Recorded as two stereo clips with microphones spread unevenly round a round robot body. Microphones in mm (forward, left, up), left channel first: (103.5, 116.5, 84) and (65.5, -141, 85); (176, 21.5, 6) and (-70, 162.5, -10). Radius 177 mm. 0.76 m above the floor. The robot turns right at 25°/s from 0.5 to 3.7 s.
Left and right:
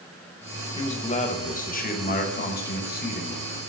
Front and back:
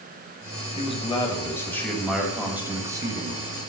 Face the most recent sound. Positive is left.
turn(degrees=105)